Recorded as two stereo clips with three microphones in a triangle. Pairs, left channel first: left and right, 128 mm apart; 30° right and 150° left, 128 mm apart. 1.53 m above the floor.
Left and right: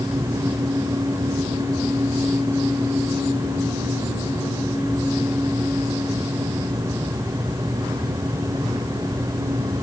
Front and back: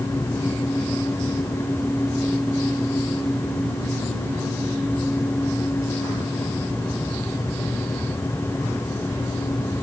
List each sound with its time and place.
Only background noise.